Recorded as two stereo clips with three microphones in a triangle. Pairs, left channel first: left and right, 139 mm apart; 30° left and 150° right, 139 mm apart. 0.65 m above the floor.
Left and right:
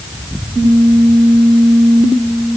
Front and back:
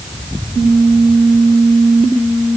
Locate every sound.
Only background noise.